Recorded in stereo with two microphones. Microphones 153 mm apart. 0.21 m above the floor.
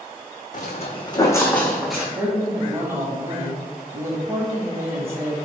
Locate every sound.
0.5 s footsteps: 55° left (ahead or behind), 0.7 m; by 2.0 s 5° right (ahead or behind), 1.0 m
2.1 s a woman speaking: 20° right (ahead or behind), 1.0 m